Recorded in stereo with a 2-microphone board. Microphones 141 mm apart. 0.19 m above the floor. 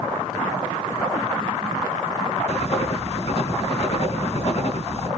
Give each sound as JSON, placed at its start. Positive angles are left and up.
{"t": 2.5, "sound": "writing", "side_deg": 50, "distance_m": 1.4}